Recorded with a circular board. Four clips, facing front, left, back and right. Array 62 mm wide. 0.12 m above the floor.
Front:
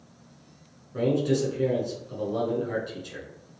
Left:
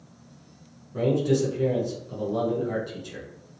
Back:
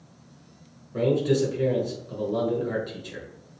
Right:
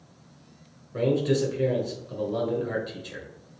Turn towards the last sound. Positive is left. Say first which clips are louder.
# left 1 dB, back 2 dB
turn(degrees=-110)